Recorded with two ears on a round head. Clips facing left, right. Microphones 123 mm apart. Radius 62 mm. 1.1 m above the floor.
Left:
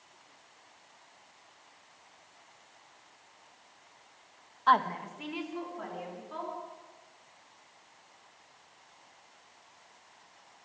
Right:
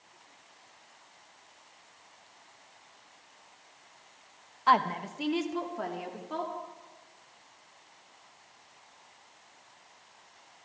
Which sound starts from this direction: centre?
A woman speaking, at 4.7 s.